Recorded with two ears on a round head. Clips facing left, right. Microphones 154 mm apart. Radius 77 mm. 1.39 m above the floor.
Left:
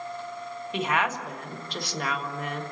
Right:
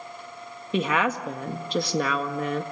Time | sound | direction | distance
0.7 | a woman speaking | 75° right (ahead or behind) | 1.8 m